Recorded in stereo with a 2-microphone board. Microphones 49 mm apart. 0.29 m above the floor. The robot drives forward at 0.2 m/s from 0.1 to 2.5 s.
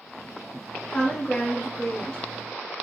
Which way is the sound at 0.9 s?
20° left (ahead or behind).